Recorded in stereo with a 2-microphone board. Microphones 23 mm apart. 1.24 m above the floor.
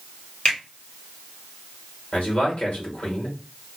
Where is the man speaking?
70° left (ahead or behind), 1.5 m.